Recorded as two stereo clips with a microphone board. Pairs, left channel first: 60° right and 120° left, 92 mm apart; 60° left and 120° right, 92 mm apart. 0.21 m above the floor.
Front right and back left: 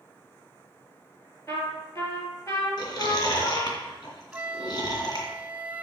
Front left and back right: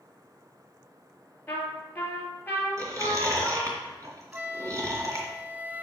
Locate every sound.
1.5 s a trumpet: 5° right, 2.5 m
2.8 s chewing: 80° right, 2.5 m
4.3 s a flute: straight behind, 0.6 m